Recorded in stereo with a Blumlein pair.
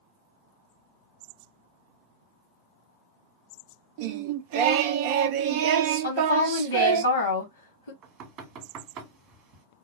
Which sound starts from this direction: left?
A woman speaking, at 6.0 s.